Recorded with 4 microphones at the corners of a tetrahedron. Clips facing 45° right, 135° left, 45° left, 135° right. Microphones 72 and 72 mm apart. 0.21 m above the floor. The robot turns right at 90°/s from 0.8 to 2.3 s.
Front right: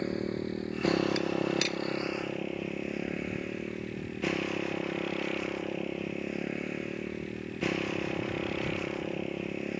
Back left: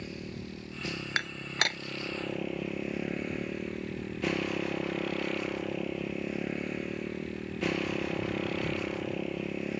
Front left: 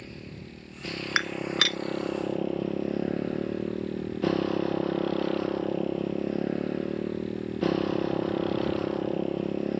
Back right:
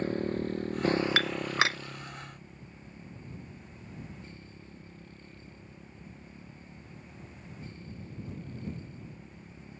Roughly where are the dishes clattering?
Behind left.